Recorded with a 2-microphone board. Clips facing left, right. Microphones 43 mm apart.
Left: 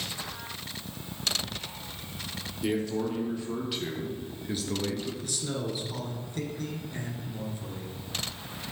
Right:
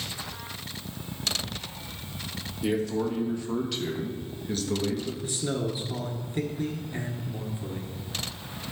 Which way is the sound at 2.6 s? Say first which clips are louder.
Right 2 dB; 5° right (ahead or behind).